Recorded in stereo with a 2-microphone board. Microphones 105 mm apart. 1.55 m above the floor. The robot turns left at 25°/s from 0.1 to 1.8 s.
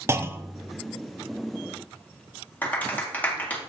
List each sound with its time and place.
0.1 s a clunk: 25° right (ahead or behind), 0.6 m; by 0.8 s 10° right (ahead or behind), 0.6 m
2.6 s a clap: 15° left (ahead or behind), 1.7 m